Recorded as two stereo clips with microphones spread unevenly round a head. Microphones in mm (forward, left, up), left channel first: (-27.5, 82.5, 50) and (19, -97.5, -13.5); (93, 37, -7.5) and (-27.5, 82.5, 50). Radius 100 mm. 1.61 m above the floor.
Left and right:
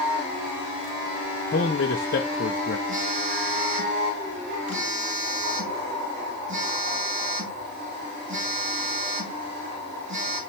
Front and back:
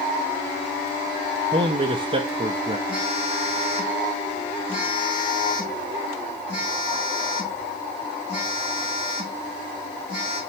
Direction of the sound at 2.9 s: 100° right.